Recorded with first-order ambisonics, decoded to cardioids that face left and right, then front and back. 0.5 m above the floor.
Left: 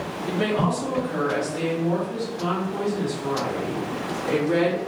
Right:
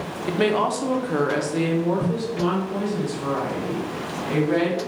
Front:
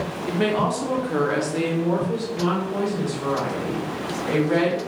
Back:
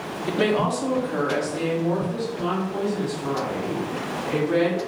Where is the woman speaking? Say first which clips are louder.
Right 3 dB, back 1 dB; 110° right, 0.8 m; by 4.9 s 35° right, 2.5 m.